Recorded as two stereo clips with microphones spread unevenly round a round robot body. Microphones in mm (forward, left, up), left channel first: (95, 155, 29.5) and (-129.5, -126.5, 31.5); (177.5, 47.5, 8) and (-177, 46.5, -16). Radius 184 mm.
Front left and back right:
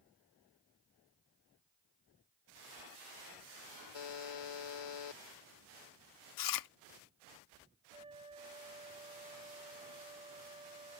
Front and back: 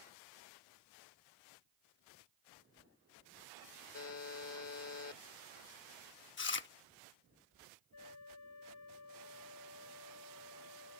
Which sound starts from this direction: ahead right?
A flute, at 7.9 s.